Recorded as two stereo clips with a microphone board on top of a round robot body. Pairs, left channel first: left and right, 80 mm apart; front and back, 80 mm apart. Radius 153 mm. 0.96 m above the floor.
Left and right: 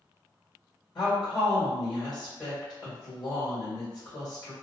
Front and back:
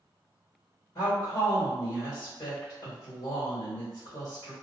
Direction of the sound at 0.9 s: 50° left.